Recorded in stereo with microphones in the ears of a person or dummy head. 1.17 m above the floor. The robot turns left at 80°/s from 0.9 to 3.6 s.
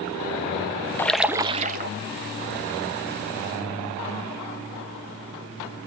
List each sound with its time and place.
1.0 s a splash: 15° left, 0.7 m; by 1.9 s 60° right, 0.7 m